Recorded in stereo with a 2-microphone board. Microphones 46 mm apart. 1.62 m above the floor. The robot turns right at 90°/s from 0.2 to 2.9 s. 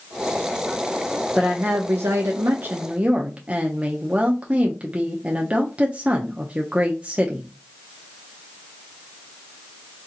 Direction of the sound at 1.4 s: 165° right.